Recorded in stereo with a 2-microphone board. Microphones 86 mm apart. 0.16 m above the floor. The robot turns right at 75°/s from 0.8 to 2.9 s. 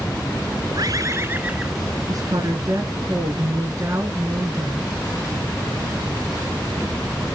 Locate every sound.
0.8 s a bird: 70° right, 1.3 m; by 1.9 s 15° left, 1.3 m
2.1 s a woman speaking: 115° right, 2 m; by 5.0 s 50° right, 2 m